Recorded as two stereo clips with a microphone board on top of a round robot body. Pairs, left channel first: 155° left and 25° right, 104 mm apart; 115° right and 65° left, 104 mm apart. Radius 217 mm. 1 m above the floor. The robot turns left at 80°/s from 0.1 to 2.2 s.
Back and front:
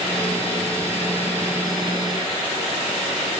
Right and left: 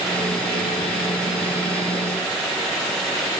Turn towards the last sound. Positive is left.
No sound to turn to.